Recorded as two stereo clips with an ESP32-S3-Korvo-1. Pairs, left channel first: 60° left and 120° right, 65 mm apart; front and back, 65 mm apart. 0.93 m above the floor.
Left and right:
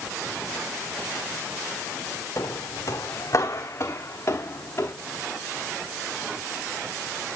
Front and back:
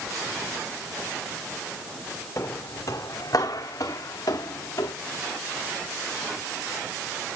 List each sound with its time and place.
2.4 s footsteps: 35° left, 3 m; by 4.9 s 10° left, 4 m